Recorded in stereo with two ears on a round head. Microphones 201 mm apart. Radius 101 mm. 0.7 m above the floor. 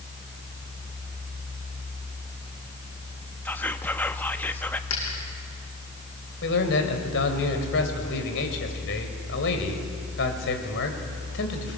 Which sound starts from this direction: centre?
Whispering, at 3.5 s.